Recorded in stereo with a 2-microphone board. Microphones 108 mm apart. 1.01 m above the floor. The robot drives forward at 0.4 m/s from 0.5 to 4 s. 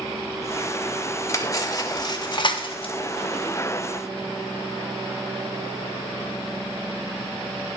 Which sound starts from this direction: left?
Cutlery clinking, at 1.3 s.